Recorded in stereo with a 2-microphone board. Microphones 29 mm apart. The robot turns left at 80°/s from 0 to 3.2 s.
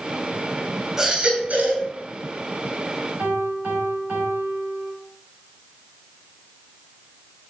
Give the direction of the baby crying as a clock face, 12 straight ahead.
12 o'clock.